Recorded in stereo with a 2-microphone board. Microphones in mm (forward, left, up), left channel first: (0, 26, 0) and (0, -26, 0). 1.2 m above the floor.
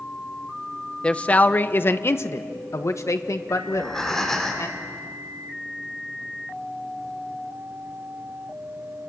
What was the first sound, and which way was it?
A man speaking, 20° left (ahead or behind).